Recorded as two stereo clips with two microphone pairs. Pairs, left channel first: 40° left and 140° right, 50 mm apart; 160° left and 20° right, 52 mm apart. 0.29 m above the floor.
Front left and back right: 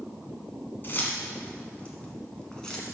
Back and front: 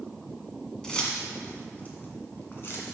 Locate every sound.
0.8 s keys jangling: 85° left, 1.7 m; by 2.9 s 120° left, 1.9 m